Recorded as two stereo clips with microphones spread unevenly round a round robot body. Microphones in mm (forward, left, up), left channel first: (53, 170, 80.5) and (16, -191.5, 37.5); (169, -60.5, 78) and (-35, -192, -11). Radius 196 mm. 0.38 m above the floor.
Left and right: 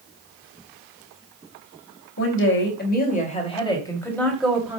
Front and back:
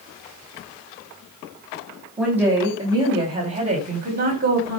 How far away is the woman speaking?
About 2.5 m.